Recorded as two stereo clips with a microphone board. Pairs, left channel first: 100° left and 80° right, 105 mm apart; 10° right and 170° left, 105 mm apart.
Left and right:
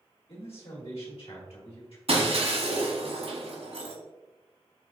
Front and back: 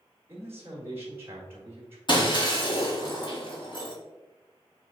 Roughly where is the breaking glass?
Ahead right.